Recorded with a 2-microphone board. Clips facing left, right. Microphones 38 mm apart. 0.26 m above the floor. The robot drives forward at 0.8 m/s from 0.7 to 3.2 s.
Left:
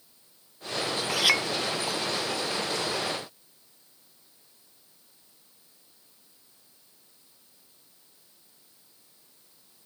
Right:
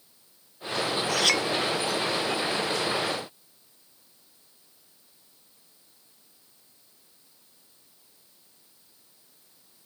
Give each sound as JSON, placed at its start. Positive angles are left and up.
{"t": 1.1, "sound": "a clink", "side_deg": 10}